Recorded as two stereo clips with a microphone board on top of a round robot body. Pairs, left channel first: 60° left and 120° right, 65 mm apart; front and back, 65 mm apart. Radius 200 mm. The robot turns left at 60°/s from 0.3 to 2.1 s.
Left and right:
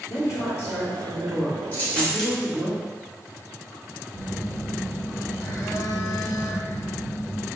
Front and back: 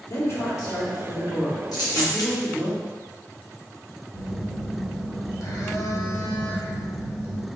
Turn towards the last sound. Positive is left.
turn(degrees=20)